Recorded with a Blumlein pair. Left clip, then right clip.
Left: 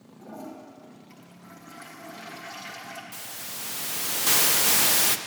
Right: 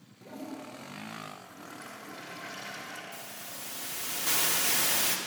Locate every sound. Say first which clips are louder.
0.2 s a toilet flushing: left 1 dB; 15° left, 1.6 m
3.1 s a hiss: left 4 dB; 65° left, 0.5 m